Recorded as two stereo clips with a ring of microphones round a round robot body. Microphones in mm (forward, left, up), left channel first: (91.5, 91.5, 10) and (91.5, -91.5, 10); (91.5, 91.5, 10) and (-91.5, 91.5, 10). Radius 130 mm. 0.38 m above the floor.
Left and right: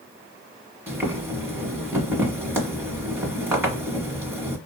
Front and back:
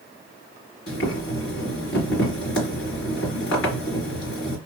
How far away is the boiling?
About 1.5 m.